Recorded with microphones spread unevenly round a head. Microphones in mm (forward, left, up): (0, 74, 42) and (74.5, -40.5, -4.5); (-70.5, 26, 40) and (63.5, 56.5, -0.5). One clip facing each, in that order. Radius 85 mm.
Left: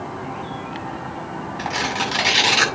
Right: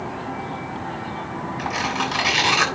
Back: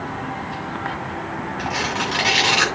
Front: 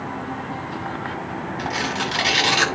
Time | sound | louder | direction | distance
1.6 | tearing paper | left 1 dB, back 1 dB | 70° left | 8 m